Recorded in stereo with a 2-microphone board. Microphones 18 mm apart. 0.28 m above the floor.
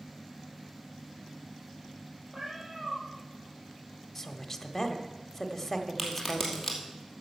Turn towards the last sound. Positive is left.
turn(degrees=-10)  # may be behind; listen again after turning